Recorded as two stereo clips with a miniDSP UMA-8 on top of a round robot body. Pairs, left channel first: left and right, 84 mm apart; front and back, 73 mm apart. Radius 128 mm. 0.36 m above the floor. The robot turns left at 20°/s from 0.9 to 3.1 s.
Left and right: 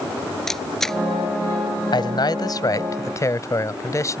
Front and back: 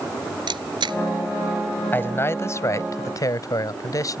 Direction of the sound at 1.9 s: 65° left.